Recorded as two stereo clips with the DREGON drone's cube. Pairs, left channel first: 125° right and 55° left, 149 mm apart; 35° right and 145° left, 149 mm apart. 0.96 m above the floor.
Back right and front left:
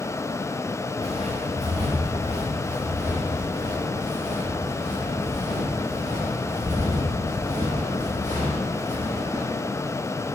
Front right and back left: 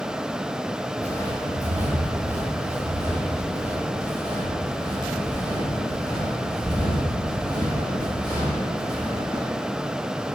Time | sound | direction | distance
1.0 | footsteps | 105° left | 3.5 m